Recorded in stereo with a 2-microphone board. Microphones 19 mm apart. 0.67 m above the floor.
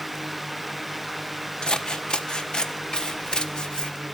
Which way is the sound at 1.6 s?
45° left (ahead or behind).